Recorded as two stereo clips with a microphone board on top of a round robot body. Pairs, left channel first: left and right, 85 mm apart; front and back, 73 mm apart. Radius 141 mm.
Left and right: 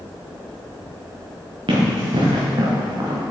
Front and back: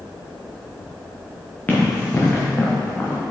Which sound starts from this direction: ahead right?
Running footsteps, at 1.7 s.